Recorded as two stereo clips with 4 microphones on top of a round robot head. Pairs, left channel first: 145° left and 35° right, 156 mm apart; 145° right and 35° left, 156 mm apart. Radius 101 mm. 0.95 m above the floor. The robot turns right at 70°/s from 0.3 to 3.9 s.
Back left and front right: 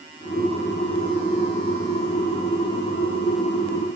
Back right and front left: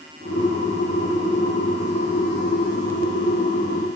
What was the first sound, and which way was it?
Only background noise.